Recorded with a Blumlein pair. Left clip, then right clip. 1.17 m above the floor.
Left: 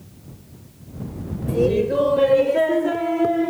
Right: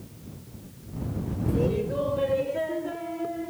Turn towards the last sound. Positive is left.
turn(degrees=55)